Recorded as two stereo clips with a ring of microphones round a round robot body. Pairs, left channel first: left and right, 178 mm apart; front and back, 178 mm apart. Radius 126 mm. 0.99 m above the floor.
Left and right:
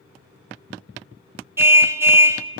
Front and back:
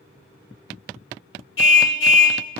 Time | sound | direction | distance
1.6 | a car horn | 15° right | 2.5 m